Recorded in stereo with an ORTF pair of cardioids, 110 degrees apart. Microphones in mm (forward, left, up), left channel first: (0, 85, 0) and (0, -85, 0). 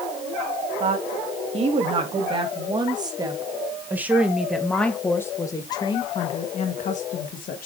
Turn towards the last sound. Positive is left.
turn(degrees=55)